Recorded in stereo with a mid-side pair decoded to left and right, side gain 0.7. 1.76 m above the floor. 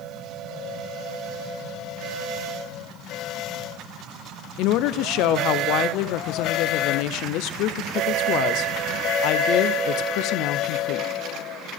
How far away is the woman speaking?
About 0.7 m.